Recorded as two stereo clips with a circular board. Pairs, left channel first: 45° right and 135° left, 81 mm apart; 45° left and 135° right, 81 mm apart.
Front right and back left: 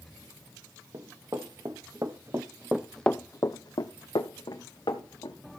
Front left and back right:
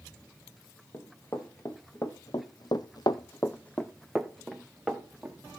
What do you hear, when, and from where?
0.9 s running footsteps: 100° left, 2 m; by 5.4 s 55° right, 2 m